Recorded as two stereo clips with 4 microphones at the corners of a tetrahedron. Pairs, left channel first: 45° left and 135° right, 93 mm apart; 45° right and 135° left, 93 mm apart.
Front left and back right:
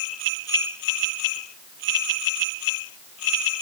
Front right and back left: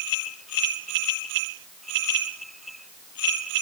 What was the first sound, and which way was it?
Only background noise.